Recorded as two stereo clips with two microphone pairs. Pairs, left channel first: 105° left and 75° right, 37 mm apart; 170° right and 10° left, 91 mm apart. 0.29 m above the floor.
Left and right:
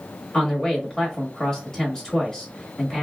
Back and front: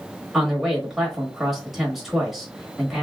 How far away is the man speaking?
About 1.0 m.